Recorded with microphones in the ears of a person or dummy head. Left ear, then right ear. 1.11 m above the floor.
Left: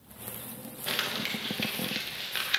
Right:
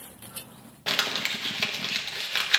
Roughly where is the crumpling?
Centre.